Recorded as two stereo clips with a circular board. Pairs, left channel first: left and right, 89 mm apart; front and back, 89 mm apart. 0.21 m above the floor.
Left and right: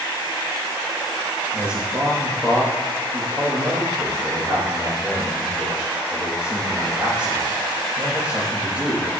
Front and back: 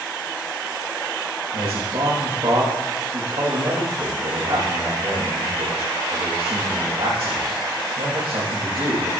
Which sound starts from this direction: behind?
A man speaking, at 1.5 s.